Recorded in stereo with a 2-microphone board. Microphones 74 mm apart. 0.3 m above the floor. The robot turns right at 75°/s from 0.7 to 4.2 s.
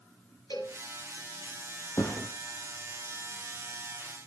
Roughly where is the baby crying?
No baby crying in this recording.